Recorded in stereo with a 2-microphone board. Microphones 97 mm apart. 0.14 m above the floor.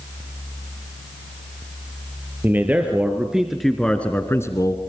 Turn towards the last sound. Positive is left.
turn(degrees=40)  # may be behind; listen again after turning